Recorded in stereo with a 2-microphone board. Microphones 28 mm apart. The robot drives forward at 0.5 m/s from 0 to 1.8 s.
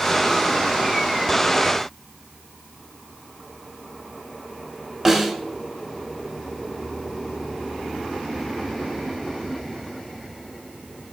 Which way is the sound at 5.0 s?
5° right (ahead or behind).